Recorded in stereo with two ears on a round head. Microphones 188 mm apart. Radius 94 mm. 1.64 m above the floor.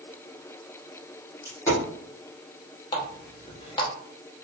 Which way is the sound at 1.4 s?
15° left (ahead or behind).